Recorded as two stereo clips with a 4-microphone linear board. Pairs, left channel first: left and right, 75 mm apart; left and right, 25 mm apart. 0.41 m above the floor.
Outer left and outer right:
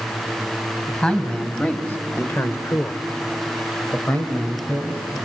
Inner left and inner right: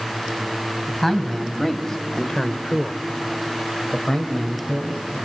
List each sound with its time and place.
0.9 s a man speaking: 15° left (ahead or behind), 2.5 m; by 5.0 s 20° left (ahead or behind), 2.5 m